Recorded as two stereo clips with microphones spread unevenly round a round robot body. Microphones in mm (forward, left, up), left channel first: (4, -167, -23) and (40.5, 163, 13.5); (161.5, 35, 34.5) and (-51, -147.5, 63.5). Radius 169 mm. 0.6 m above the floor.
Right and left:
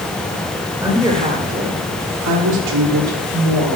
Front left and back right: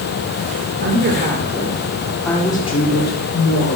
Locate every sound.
0.8 s a woman speaking: 165° left, 2.5 m; by 3.8 s 70° left, 2.5 m